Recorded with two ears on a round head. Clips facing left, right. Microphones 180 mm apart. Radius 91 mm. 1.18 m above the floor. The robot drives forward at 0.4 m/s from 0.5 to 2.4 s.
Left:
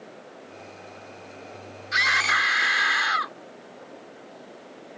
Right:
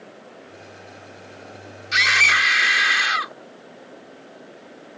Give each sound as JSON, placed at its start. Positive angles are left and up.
{"t": 1.9, "sound": "a scream", "side_deg": -40}